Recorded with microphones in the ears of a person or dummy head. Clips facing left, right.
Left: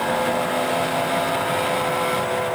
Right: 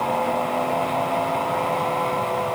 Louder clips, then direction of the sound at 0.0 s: Left 1 dB; 15° left (ahead or behind).